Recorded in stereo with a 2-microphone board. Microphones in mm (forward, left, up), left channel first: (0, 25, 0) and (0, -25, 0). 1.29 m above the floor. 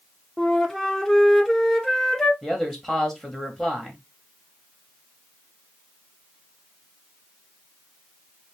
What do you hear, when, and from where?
0.4 s a flute: 10° left (ahead or behind), 0.5 m
2.4 s a man speaking: 10° left (ahead or behind), 1.4 m